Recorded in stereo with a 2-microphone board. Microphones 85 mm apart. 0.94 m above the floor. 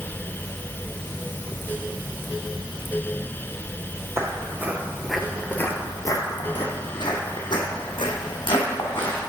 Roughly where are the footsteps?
Right.